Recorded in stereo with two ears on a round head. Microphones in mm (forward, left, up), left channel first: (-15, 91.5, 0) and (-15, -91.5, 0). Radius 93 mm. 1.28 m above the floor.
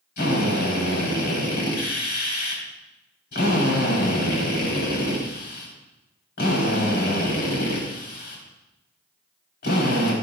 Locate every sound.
0.2 s a drill: 65° left (ahead or behind), 3.5 m